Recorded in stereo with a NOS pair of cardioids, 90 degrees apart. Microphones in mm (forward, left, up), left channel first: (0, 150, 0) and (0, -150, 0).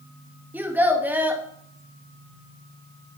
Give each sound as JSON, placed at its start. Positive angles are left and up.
{"t": 0.5, "sound": "a child speaking", "azimuth_deg": -5, "distance_m": 2.0}